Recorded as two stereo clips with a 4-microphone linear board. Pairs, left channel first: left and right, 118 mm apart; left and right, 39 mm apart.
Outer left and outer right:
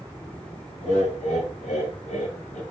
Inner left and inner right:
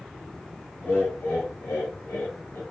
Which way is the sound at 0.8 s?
70° left (ahead or behind).